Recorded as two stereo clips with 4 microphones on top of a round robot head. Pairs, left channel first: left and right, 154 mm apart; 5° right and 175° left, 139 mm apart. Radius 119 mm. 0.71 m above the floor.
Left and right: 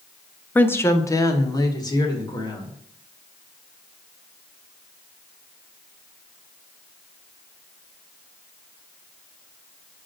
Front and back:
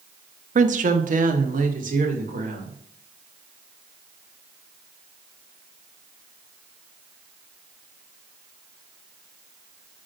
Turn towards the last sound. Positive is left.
turn(degrees=155)